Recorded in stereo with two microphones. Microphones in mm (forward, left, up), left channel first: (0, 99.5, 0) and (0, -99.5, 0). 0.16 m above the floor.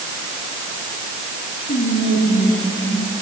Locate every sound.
1.7 s whispering: 70° left (ahead or behind), 4 m